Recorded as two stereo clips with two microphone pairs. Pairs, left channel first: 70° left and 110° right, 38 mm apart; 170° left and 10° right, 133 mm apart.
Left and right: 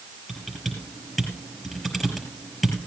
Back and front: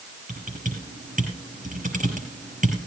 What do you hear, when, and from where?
0.3 s typing on a keyboard: 10° right, 5 m